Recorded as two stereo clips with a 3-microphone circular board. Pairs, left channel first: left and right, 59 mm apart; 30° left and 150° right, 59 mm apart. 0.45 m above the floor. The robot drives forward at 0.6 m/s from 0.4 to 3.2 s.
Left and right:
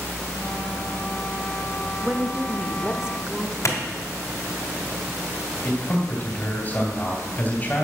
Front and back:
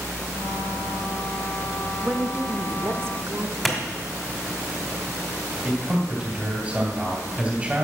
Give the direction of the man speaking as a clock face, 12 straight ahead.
7 o'clock.